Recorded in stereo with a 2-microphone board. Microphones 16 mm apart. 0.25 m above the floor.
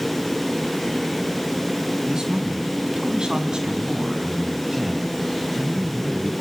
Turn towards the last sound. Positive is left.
turn(degrees=-5)  # may be behind; listen again after turning